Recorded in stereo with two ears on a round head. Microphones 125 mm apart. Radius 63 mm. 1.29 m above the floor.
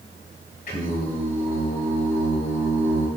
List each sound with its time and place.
0.7 s singing: 70° left (ahead or behind), 3 m